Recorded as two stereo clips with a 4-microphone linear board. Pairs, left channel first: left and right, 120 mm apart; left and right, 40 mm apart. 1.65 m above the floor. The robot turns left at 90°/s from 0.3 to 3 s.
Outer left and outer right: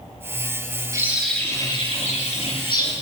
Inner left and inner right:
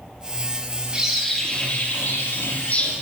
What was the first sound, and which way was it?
A bird, 150° right.